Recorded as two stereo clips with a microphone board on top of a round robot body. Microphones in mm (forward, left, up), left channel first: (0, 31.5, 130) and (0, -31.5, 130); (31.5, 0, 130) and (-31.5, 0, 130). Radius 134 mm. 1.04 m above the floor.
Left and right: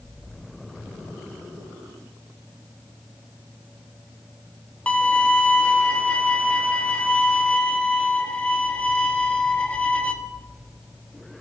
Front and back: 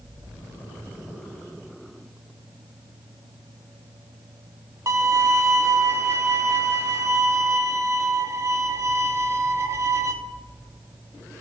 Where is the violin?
155° left, 1.0 m.